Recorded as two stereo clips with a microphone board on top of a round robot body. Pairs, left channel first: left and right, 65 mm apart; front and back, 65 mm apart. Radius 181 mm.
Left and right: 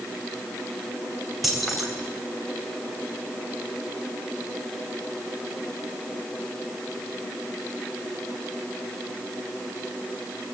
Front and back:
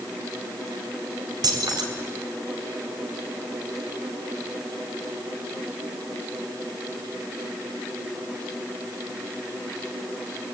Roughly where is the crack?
No crack in this recording.